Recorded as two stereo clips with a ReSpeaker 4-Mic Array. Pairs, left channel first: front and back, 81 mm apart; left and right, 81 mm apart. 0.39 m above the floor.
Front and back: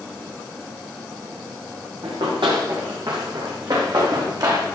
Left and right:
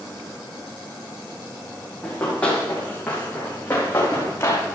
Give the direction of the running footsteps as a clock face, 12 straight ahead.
6 o'clock.